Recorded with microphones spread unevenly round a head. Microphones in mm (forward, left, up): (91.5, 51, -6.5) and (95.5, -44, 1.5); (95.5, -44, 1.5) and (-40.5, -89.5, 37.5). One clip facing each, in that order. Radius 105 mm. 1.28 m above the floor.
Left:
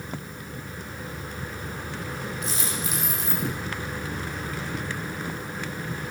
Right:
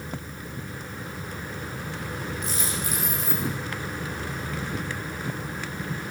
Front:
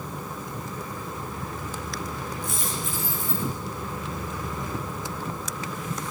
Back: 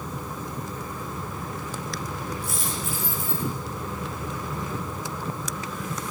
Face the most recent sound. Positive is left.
turn(degrees=115)